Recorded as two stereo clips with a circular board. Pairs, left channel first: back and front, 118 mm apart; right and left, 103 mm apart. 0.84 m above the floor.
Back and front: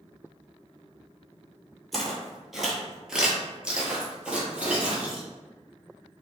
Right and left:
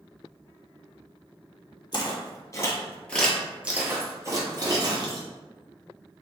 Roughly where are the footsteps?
Right.